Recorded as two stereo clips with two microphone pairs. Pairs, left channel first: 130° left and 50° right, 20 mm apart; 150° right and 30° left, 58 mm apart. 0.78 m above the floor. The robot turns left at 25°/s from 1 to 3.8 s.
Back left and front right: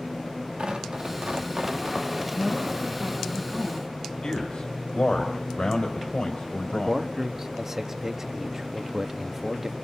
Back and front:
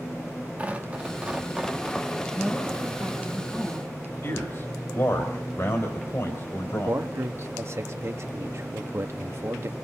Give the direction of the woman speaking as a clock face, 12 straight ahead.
2 o'clock.